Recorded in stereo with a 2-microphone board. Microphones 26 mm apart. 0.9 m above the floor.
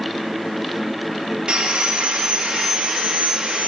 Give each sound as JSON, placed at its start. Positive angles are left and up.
{"t": 1.5, "sound": "sawing", "side_deg": -40, "distance_m": 1.3}